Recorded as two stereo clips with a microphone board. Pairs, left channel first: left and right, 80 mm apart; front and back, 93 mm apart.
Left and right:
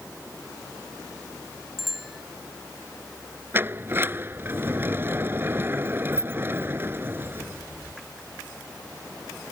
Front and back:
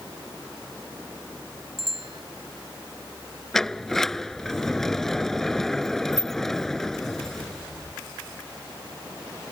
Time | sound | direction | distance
1.8 | a bicycle bell | straight behind | ?
3.5 | a sliding door | 80° right | ?